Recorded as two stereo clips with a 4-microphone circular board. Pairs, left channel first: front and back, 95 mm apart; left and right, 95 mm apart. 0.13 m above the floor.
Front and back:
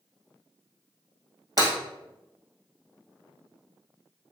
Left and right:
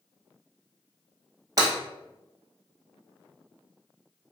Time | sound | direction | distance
1.6 | breaking glass | 140° right | 1.6 m